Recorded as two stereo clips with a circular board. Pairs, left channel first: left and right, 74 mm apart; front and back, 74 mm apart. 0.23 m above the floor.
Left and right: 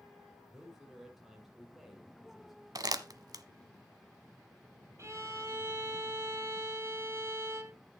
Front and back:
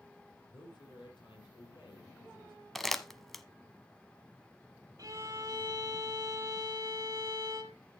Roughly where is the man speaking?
Ahead.